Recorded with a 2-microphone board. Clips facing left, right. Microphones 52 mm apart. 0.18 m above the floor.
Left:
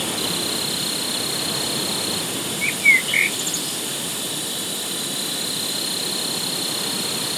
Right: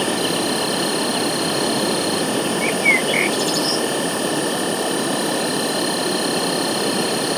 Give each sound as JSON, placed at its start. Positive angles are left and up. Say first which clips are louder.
{"t": 0.0, "sound": "an insect", "louder": "right 6 dB", "side_deg": -50}
{"t": 2.6, "sound": "a bird", "louder": "left 2 dB", "side_deg": 10}